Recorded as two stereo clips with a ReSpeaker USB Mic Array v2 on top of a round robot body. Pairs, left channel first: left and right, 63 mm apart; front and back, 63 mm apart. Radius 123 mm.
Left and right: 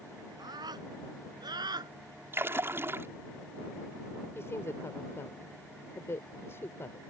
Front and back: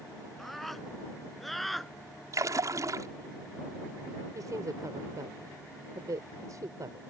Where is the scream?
85° right; by 1.9 s 90° right.